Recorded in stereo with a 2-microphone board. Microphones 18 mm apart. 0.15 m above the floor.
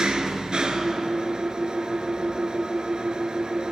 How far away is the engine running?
About 0.8 m.